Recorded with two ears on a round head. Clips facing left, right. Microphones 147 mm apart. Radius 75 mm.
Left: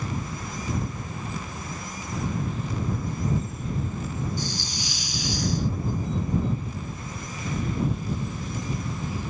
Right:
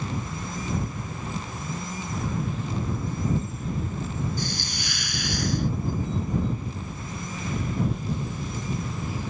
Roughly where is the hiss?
Right.